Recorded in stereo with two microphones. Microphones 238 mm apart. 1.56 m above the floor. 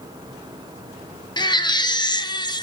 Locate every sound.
1.4 s a baby crying: 20° left (ahead or behind), 0.7 m